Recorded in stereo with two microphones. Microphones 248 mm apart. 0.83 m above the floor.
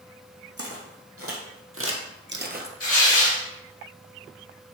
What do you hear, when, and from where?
0.6 s footsteps: 70° right (ahead or behind), 2.5 m; by 2.7 s 35° right (ahead or behind), 1.0 m
2.8 s tearing paper: 65° left (ahead or behind), 4 m